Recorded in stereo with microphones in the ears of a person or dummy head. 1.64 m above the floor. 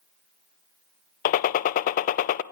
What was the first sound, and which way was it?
A gunshot, 40° left (ahead or behind).